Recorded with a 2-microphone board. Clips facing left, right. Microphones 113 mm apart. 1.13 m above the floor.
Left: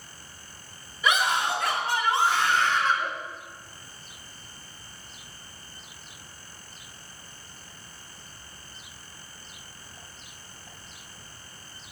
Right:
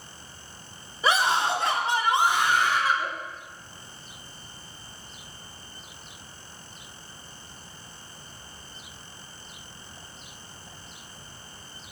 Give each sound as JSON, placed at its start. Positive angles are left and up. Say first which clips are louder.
{"t": 1.0, "sound": "a scream", "louder": "right 2 dB", "side_deg": -35, "distance_m": 3.0}